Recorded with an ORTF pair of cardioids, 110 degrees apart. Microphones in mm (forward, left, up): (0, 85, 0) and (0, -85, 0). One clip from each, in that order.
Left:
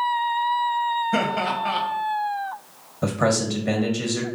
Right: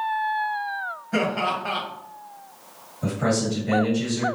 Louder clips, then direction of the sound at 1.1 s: Left 1 dB; 15° left.